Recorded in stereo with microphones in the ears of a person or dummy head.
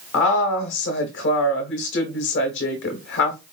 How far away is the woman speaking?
About 1.1 m.